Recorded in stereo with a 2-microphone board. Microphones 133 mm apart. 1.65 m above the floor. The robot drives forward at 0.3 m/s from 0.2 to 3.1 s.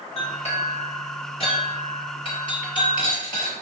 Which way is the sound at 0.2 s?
50° left (ahead or behind).